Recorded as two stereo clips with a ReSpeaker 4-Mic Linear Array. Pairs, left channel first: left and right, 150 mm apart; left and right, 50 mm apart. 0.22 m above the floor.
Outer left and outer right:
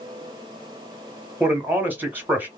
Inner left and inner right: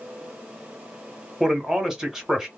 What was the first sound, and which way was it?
A man speaking, 15° right (ahead or behind).